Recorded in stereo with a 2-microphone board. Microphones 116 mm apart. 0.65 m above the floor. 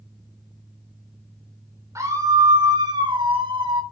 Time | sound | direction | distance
1.9 | a scream | 25° right (ahead or behind) | 2.5 m